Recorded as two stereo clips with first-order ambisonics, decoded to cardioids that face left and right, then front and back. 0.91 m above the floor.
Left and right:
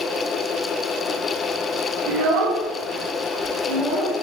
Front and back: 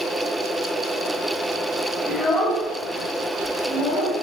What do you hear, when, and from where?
2.1 s a child speaking: 85° right, 0.6 m; by 4.1 s 5° left, 1.0 m